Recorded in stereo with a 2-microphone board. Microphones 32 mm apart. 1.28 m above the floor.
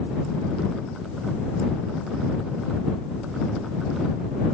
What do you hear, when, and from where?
Only background noise.